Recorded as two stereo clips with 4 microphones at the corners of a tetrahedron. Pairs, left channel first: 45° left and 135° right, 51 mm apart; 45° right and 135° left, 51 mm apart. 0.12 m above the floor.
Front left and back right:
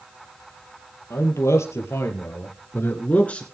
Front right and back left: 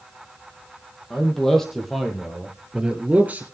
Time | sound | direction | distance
1.1 | a man speaking | 35° left | 3.5 m